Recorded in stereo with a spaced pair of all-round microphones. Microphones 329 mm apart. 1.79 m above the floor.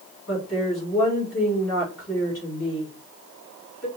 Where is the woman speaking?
50° left (ahead or behind), 2.5 m.